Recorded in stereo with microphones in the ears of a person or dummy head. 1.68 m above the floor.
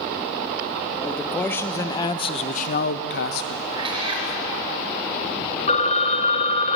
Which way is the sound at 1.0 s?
Centre (ahead or behind).